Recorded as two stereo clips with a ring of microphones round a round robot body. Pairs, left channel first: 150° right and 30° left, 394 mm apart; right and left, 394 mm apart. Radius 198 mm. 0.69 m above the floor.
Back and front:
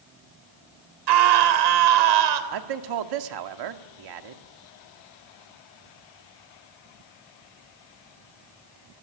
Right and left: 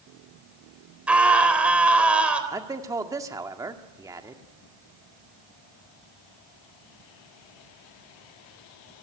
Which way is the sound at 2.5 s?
10° left.